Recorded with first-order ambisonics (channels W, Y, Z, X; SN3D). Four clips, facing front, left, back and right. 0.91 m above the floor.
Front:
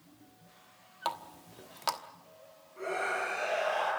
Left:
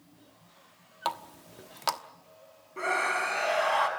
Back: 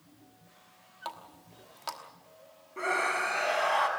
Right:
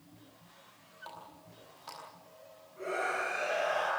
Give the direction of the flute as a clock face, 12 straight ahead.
No flute in this recording.